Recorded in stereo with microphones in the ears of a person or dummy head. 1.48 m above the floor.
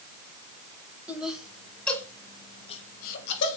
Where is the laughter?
10° right (ahead or behind), 2.0 m; by 3.6 s 65° left (ahead or behind), 1.2 m.